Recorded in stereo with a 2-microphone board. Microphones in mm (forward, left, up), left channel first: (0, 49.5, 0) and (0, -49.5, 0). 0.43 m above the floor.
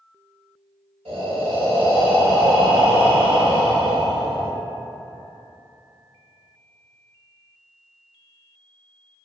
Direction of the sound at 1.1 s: 70° right (ahead or behind).